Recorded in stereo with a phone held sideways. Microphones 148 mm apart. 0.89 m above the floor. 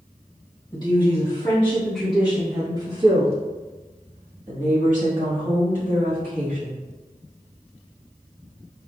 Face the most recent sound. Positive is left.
turn(degrees=-65)  # may be behind; listen again after turning